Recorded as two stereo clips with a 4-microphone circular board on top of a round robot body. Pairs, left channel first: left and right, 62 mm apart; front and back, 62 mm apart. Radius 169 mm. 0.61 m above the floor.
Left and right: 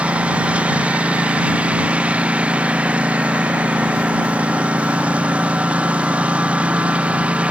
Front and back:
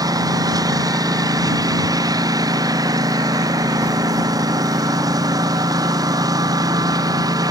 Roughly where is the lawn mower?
Behind.